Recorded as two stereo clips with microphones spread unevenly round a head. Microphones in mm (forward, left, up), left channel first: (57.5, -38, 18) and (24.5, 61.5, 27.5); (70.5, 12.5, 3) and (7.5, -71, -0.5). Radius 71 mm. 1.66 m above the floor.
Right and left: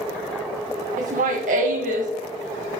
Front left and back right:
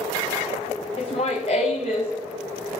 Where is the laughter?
110° left, 1.8 m.